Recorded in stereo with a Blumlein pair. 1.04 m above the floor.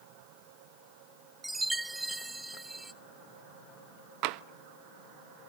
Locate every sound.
1.4 s a chime: 5° right, 0.9 m
4.2 s tapping: 40° right, 0.8 m